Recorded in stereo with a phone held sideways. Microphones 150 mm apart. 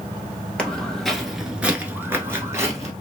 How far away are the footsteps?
About 1.1 m.